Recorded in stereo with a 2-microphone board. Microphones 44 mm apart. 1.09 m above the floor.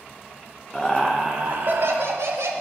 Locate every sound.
0.7 s laughter: centre (ahead or behind), 0.7 m; by 2.5 s 80° right, 1.0 m